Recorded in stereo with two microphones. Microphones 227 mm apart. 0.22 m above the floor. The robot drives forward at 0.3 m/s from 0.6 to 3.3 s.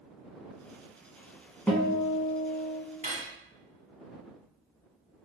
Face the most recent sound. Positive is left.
turn(degrees=-35)  # may be behind; listen again after turning